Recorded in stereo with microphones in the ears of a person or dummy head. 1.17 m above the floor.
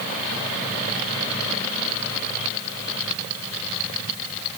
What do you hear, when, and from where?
Only background noise.